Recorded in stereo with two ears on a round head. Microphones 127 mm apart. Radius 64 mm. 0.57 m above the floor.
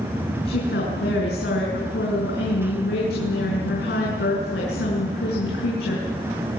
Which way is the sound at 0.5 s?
80° left.